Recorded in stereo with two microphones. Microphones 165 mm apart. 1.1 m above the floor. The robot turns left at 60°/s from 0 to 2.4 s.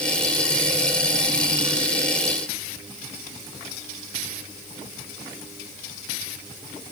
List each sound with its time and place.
Only background noise.